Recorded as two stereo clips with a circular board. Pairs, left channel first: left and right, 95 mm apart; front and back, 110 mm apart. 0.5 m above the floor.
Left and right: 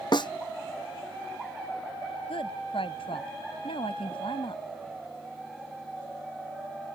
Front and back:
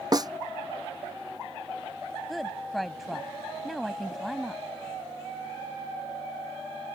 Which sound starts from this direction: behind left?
A snare drum, at 0.1 s.